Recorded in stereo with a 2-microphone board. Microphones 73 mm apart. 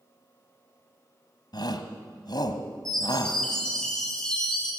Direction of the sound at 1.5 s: 60° left (ahead or behind).